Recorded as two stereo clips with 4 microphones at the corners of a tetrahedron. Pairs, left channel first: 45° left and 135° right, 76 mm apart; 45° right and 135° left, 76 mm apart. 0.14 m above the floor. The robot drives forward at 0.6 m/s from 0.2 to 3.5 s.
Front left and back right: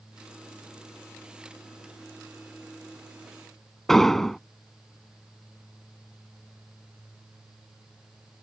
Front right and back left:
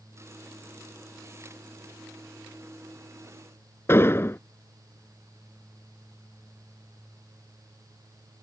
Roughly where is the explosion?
Ahead right.